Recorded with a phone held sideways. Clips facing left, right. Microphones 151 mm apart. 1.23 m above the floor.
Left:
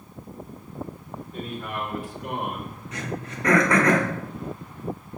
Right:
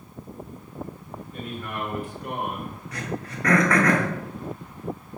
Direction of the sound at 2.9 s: 20° left (ahead or behind).